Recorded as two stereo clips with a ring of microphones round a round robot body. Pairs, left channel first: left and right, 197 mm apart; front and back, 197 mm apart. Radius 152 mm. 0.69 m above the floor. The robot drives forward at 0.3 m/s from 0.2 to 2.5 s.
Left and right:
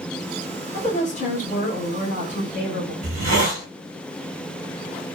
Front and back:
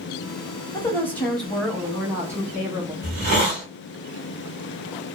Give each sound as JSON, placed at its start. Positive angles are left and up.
{"t": 0.7, "sound": "a woman speaking", "azimuth_deg": 70, "distance_m": 1.1}
{"t": 3.0, "sound": "a hiss", "azimuth_deg": -140, "distance_m": 0.9}